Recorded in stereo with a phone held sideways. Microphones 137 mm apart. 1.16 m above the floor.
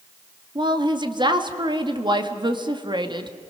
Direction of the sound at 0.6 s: 35° right (ahead or behind).